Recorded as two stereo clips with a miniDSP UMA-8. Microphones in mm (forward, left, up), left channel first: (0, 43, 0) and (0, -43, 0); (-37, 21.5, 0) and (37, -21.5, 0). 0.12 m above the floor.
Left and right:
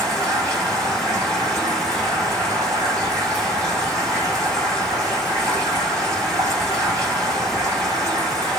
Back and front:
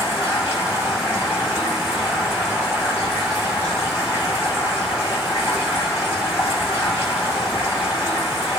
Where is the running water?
145° right, 5.5 m.